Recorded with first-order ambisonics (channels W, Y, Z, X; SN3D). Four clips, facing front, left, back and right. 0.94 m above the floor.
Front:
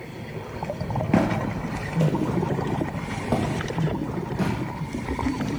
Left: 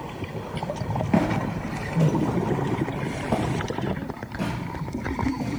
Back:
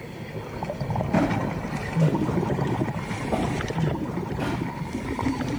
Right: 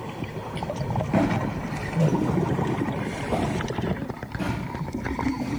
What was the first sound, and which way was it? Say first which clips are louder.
Footsteps: even, front 1 dB; 25° left.